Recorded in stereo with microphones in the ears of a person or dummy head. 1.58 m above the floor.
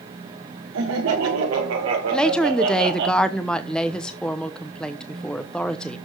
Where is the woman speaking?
5° left (ahead or behind), 0.9 m.